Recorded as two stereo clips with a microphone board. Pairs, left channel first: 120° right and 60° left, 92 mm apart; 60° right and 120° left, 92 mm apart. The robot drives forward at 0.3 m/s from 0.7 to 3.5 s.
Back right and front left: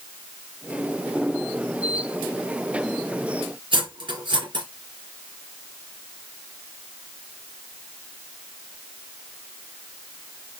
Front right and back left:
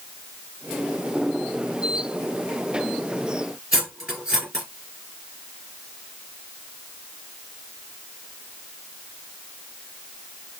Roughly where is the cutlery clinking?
Ahead left.